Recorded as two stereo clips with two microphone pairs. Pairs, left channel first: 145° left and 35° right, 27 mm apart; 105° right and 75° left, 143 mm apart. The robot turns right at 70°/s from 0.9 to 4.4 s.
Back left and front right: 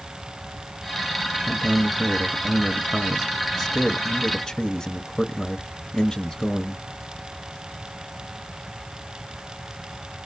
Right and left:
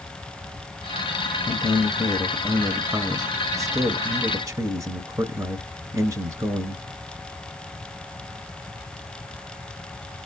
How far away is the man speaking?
About 1.2 m.